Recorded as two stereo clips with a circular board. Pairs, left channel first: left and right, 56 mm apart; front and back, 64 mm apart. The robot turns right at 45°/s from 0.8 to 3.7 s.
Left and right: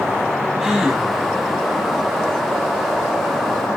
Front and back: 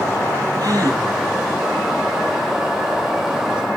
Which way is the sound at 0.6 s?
175° right.